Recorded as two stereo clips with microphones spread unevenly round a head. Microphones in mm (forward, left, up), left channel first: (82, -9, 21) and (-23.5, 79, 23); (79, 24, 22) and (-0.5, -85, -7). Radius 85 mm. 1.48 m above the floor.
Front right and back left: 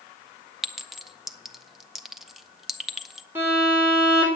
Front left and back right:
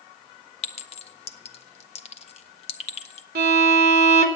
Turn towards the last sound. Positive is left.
turn(degrees=-140)